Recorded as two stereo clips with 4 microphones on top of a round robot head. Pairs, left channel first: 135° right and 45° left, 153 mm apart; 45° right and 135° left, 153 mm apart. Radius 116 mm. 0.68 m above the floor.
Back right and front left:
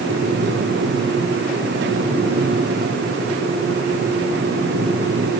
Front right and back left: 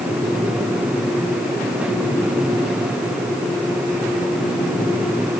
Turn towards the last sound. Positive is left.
No sound to turn to.